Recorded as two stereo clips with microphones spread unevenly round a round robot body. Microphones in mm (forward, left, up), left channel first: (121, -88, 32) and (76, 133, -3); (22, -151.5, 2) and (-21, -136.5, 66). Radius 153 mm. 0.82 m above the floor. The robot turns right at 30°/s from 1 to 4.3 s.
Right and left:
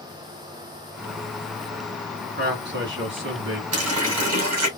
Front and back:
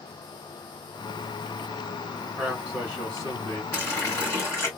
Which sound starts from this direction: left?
A running tap, at 3.7 s.